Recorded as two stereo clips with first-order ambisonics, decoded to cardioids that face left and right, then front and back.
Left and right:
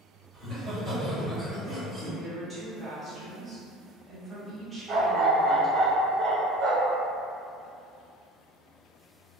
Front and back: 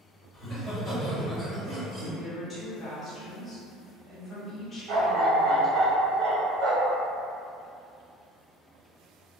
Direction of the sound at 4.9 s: 145° right.